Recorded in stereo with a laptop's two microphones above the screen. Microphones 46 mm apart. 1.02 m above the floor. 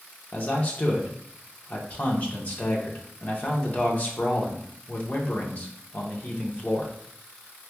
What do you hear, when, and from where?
0.3 s a man speaking: 30° left (ahead or behind), 0.8 m